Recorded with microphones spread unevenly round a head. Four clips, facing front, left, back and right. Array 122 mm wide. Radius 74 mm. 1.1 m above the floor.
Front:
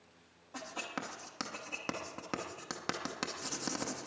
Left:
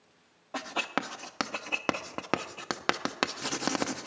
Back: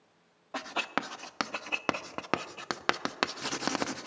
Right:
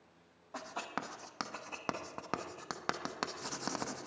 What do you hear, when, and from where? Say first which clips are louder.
0.5 s writing: left 8 dB, back 8 dB; 125° left, 0.7 m